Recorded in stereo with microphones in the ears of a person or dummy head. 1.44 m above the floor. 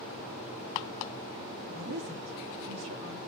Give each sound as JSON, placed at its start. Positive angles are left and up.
{"t": 1.7, "sound": "a woman speaking", "side_deg": -85, "distance_m": 2.5}